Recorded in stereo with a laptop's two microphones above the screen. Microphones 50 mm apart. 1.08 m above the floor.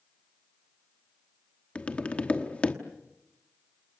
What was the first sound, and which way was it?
Tapping, 30° left (ahead or behind).